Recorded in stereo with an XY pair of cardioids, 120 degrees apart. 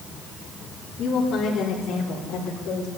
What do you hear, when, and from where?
1.0 s a woman speaking: 55° left, 3.5 m; by 2.9 s 75° left, 5 m